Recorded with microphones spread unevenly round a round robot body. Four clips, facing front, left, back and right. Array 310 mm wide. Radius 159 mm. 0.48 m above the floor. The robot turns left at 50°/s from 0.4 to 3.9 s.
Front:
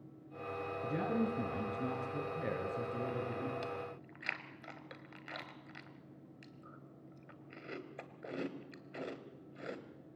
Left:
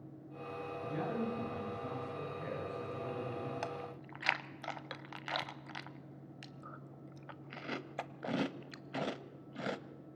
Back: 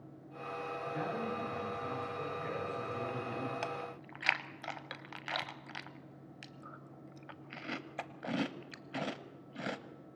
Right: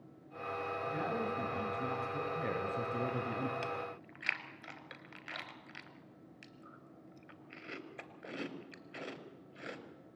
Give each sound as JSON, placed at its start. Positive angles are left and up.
{"t": 0.8, "sound": "a man speaking", "azimuth_deg": 25, "distance_m": 7.0}
{"t": 3.6, "sound": "chewing", "azimuth_deg": 150, "distance_m": 1.3}